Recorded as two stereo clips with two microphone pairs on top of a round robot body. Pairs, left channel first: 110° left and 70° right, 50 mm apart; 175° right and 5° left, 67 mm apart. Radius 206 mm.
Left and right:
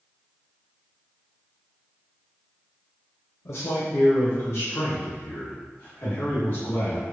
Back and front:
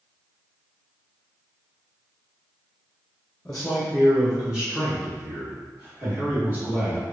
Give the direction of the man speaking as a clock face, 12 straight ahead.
8 o'clock.